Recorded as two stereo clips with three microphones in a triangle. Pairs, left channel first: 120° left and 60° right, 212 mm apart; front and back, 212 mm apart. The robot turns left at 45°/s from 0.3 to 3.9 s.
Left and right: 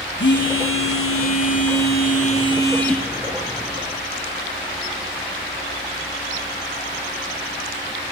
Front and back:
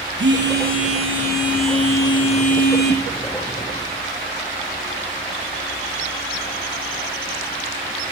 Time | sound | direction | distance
0.2 | a phone buzzing | 150° left | 5.5 m